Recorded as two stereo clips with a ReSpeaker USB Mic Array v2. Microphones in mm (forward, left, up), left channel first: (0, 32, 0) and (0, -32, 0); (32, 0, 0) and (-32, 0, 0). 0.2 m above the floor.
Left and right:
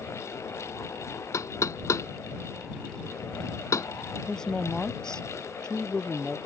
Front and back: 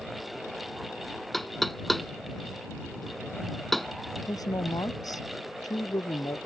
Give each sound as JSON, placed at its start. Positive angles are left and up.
{"t": 1.3, "sound": "knocking", "azimuth_deg": 85}
{"t": 4.3, "sound": "a woman speaking", "azimuth_deg": 10}